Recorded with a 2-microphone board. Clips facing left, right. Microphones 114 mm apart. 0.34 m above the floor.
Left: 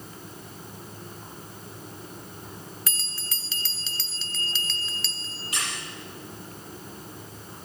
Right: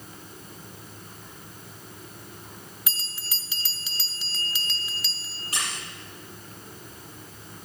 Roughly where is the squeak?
Right.